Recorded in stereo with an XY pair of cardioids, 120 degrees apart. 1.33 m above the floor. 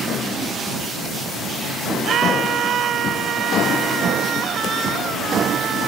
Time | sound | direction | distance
2.0 | a scream | 60° right | ?